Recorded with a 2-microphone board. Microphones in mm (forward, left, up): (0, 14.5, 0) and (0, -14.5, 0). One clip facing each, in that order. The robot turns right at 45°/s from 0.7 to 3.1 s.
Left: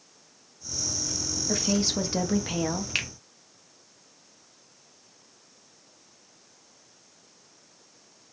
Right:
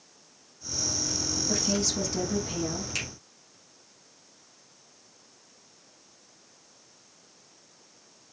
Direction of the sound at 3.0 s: 45° left (ahead or behind).